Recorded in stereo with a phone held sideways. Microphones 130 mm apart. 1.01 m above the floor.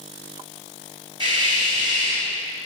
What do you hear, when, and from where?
1.2 s a hiss: 40° right (ahead or behind), 4.5 m